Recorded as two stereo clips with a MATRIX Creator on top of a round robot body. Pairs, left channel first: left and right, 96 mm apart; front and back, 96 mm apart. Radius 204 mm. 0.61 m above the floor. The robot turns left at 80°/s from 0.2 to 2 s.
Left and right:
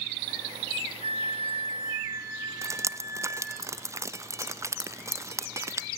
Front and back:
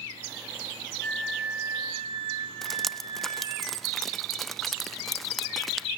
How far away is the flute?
About 1.2 m.